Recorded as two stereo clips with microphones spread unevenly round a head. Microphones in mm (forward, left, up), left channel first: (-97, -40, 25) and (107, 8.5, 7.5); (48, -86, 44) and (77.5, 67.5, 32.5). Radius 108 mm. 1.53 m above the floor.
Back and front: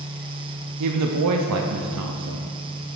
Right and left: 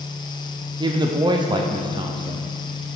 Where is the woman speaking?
15° left, 0.5 m.